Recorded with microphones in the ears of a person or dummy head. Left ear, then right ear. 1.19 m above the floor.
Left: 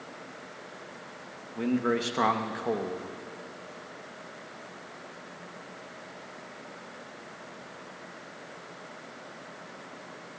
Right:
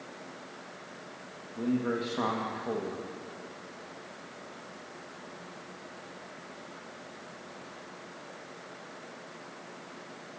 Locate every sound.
1.6 s a man speaking: 65° left (ahead or behind), 1.4 m